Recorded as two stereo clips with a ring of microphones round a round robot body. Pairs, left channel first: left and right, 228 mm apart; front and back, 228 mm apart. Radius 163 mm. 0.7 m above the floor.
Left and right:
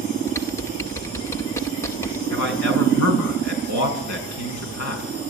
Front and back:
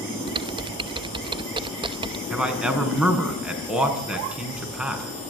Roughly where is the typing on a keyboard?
Behind left.